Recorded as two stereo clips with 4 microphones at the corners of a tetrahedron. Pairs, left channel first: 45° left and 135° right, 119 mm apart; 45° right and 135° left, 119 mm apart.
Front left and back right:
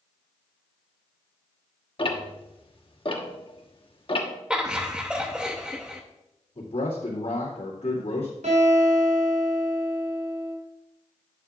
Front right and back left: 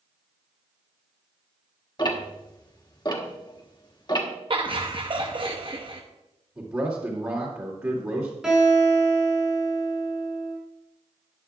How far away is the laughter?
About 0.7 m.